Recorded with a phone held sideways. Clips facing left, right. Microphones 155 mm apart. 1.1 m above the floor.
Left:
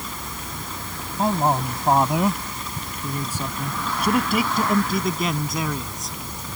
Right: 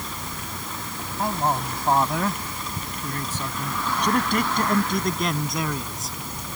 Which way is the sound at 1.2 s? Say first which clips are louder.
Left 4 dB; 25° left (ahead or behind).